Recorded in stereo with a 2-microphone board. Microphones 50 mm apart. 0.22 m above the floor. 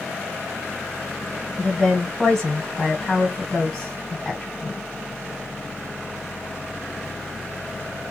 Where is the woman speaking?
10° left (ahead or behind), 2 m.